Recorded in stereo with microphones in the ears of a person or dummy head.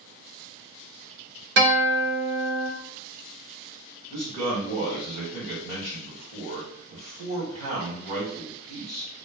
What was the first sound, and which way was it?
A guitar, 70° right (ahead or behind).